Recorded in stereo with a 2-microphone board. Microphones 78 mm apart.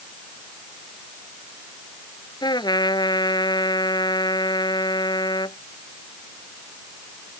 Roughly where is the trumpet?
Left.